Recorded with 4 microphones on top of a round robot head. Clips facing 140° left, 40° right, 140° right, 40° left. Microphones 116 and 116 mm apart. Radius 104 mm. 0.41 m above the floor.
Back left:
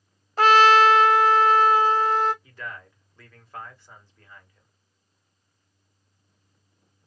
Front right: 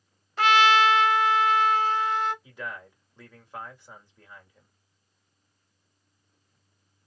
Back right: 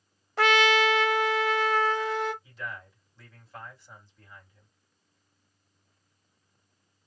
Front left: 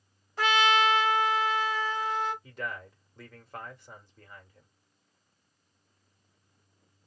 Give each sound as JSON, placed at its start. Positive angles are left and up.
{"t": 0.4, "sound": "a trumpet", "azimuth_deg": -165, "distance_m": 0.7}
{"t": 2.4, "sound": "a man speaking", "azimuth_deg": 30, "distance_m": 1.9}